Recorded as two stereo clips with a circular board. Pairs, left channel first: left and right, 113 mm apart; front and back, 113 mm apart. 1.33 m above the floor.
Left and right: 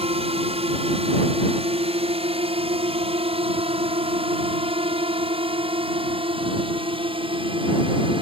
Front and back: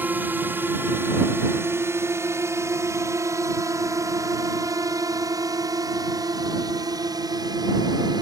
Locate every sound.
0.0 s a drone: 110° right; by 8.2 s 130° right